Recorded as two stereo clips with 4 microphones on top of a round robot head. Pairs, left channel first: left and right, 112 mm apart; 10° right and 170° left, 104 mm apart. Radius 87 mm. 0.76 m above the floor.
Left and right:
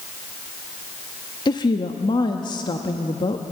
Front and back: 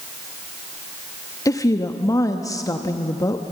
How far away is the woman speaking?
About 1.1 m.